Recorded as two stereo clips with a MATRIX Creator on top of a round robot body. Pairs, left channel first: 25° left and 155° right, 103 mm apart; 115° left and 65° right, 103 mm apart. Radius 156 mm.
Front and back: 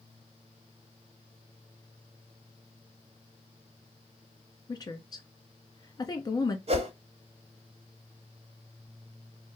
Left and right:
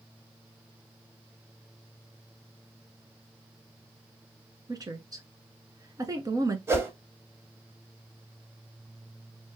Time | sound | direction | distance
4.7 | a woman speaking | 20° right | 1.3 m
6.7 | a whoosh | 135° right | 1.1 m